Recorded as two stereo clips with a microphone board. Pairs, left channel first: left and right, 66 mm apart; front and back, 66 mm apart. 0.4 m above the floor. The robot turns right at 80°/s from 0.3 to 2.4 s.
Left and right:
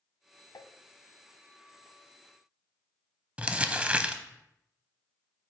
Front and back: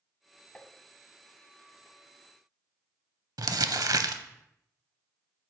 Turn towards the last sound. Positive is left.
turn(degrees=-160)